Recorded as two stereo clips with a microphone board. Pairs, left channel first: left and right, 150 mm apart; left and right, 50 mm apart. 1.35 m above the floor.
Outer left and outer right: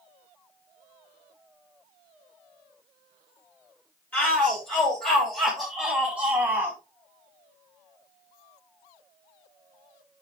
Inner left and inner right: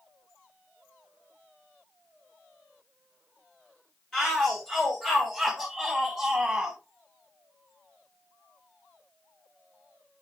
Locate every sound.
4.1 s a shout: 10° left (ahead or behind), 4 m; by 6.8 s 15° right (ahead or behind), 2 m